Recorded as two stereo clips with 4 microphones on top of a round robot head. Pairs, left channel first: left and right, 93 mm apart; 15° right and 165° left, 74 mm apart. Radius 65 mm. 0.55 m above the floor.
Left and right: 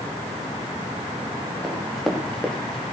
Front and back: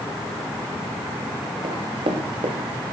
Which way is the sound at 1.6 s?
175° left.